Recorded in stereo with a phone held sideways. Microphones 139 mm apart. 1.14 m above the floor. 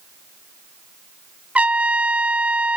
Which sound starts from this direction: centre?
A trumpet, at 1.6 s.